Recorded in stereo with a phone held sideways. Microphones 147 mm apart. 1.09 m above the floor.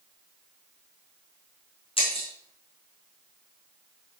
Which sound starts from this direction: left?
Breaking glass, at 2.0 s.